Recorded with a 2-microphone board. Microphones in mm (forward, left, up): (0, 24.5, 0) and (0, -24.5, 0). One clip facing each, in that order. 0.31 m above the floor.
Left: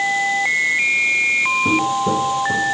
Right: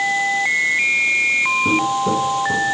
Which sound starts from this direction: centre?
Footsteps, at 1.6 s.